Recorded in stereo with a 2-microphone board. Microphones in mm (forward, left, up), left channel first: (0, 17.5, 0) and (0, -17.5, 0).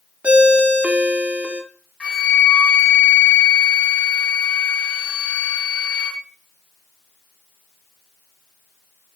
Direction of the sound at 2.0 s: 25° left (ahead or behind).